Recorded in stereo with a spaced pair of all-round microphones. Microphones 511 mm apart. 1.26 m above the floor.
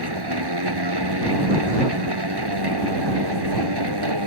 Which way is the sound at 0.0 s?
50° right (ahead or behind).